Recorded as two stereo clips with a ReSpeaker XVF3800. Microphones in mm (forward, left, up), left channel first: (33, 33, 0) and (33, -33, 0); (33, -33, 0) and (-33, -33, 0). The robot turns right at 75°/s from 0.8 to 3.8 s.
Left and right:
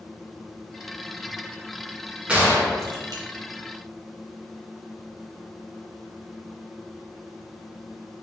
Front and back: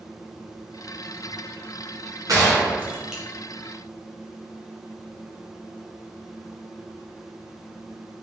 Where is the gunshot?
160° right, 0.7 m; by 3.2 s 90° right, 0.7 m.